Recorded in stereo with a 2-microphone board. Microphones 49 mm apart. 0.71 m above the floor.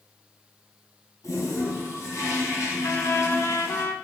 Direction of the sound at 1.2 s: 85° left.